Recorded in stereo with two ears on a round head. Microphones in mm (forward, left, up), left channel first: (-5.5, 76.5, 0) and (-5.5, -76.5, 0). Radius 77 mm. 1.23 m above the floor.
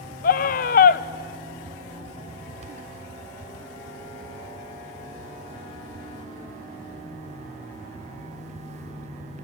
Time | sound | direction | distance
0.2 | a scream | 55° left (ahead or behind) | 0.7 m